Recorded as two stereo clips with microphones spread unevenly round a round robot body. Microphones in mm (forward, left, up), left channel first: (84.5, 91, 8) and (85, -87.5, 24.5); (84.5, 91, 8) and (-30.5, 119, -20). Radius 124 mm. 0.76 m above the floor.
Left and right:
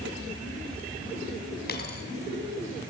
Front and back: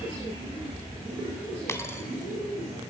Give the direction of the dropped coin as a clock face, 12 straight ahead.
10 o'clock.